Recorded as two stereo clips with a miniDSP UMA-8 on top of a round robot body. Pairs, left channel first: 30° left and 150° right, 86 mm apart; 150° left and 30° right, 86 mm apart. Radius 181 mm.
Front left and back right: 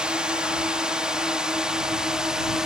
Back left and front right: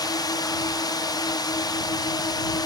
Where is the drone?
130° left.